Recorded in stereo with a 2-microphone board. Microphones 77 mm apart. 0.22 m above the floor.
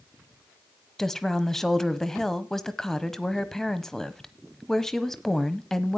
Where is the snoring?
No snoring in this recording.